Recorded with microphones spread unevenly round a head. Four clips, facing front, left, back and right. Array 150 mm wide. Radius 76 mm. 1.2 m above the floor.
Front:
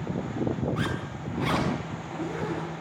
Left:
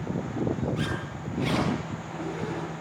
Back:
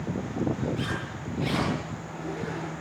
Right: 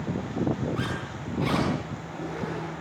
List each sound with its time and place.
0.8 s a zipper: 20° right, 6.5 m